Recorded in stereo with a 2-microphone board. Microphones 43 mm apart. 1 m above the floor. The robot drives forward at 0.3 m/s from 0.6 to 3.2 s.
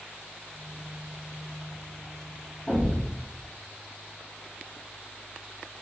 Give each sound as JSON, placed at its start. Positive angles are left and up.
{"t": 2.7, "sound": "a thud", "side_deg": -5, "distance_m": 0.9}